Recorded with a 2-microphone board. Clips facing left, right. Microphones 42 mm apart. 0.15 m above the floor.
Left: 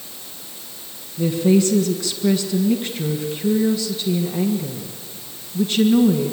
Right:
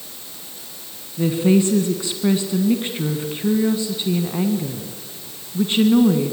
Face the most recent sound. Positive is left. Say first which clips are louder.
# even
turn(degrees=-25)  # may be behind; listen again after turning